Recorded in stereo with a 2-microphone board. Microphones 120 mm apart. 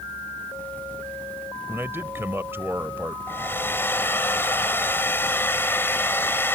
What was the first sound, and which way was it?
A man speaking, 20° right (ahead or behind).